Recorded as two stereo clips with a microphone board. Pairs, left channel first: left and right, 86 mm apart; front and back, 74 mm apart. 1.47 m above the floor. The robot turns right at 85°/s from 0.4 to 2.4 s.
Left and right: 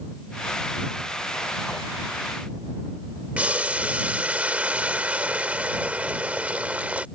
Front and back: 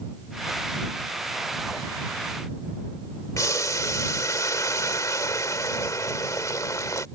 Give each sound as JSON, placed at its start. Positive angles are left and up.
{"t": 3.4, "sound": "boiling", "azimuth_deg": -20}